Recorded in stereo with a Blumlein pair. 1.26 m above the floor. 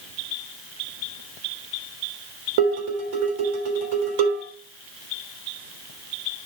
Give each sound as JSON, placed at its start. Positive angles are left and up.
{"t": 2.6, "sound": "dishes clattering", "azimuth_deg": -50, "distance_m": 3.0}